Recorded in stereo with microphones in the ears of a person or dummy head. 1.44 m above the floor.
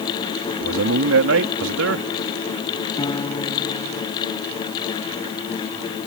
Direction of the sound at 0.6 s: 70° right (ahead or behind).